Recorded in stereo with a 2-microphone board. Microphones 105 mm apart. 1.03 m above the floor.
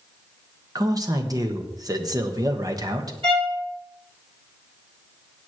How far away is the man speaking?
About 1.2 m.